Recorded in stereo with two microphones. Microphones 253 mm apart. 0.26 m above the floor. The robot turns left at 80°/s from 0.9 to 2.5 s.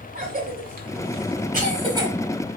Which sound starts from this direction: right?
A cough, at 0.1 s.